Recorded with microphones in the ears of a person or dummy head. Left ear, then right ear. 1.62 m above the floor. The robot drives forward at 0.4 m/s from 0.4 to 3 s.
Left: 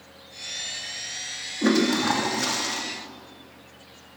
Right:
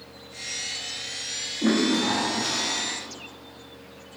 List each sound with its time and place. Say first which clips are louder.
1.6 s a toilet flushing: left 2 dB; 80° left, 2.5 m; by 2.8 s 70° left (ahead or behind), 3 m